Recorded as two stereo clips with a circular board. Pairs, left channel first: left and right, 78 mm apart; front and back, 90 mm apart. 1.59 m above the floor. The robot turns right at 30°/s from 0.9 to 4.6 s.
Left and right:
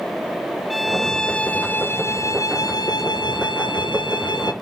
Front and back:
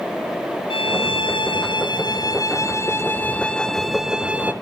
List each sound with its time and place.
0.7 s a violin: straight ahead, 0.8 m; by 4.5 s 110° left, 0.8 m